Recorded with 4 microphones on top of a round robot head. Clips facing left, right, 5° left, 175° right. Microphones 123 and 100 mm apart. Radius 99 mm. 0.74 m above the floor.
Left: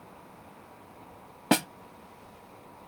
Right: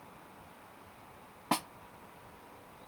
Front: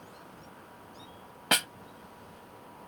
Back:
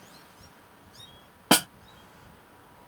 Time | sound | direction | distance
1.5 | a snare drum | 135° left | ?